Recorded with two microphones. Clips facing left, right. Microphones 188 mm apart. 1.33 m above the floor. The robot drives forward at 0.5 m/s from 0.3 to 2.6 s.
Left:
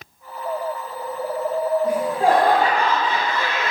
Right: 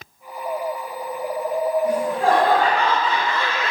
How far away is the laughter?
About 2.0 m.